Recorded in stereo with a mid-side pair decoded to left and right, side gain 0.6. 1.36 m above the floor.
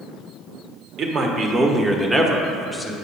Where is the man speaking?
45° right, 1.3 m; by 2.9 s 5° left, 1.2 m.